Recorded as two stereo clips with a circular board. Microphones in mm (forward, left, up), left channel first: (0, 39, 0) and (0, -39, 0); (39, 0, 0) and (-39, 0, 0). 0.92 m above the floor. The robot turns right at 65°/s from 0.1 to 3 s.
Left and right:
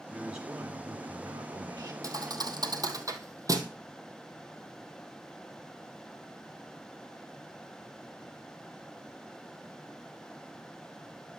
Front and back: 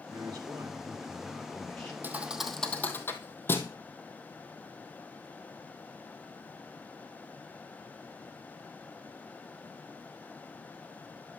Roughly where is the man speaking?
Behind.